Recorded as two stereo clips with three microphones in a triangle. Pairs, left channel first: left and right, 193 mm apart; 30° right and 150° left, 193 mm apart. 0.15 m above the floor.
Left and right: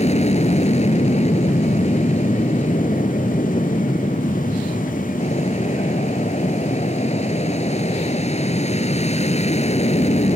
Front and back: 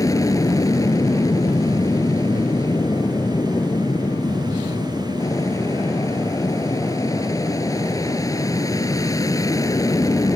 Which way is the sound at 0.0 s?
40° left.